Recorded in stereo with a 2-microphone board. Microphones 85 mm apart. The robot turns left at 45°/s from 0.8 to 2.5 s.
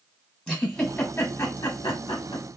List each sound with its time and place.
0.5 s a giggle: 10° left (ahead or behind), 1.1 m; by 2.5 s 80° left, 1.1 m